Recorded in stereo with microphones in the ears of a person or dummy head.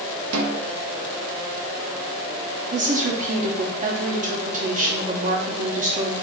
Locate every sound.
0.3 s a snare drum: 80° right, 0.6 m
2.7 s a woman speaking: 35° right (ahead or behind), 0.6 m